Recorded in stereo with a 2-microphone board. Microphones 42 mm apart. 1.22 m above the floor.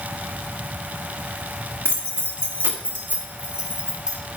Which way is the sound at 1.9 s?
75° right (ahead or behind).